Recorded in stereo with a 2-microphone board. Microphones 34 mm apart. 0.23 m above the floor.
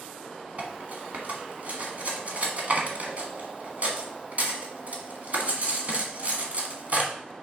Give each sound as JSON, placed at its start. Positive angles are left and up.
{"t": 0.6, "sound": "cutlery clinking", "side_deg": -45, "distance_m": 1.3}